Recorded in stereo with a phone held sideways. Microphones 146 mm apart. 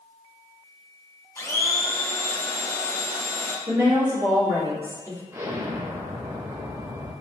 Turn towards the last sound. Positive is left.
turn(degrees=-15)  # may be behind; listen again after turning